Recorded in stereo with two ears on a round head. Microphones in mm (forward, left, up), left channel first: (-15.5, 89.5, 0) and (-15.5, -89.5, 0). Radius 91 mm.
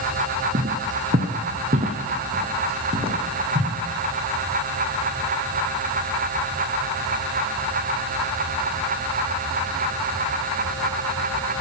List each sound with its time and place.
0.5 s footsteps: 40° right (ahead or behind), 1.5 m; by 3.8 s 25° right (ahead or behind), 2.5 m